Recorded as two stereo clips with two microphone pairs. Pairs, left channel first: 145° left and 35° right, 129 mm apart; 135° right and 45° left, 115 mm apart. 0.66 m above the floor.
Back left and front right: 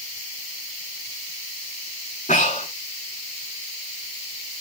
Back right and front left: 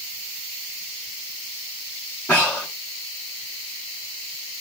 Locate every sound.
2.3 s breathing: 150° left, 8.5 m